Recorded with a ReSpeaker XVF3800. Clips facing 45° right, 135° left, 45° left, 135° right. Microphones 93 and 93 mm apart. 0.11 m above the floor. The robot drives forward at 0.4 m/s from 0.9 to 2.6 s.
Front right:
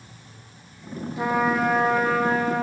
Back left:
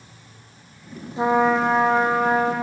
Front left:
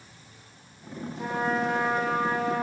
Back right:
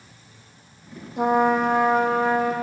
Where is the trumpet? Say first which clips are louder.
Back left 4 dB, back right 9 dB; 160° right, 0.7 m; by 2.5 s 170° right, 1.3 m.